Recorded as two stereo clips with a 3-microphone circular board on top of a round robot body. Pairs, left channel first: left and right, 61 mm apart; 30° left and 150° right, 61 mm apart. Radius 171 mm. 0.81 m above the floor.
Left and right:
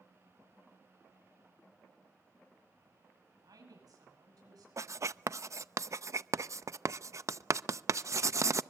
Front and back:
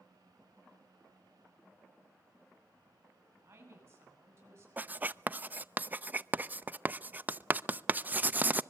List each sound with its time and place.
3.4 s a woman speaking: 100° right, 9.5 m
4.8 s writing: 95° right, 0.7 m